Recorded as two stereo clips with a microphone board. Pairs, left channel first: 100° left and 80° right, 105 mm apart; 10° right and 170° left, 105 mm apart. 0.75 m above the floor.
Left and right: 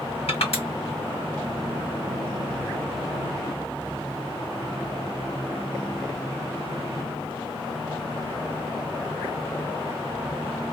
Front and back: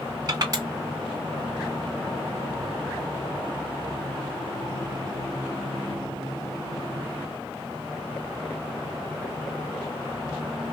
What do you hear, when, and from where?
0.3 s crushing: 120° left, 2.5 m